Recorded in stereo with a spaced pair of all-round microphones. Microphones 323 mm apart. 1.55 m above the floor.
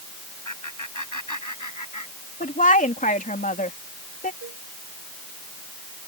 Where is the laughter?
70° left (ahead or behind); by 2.6 s 65° left (ahead or behind).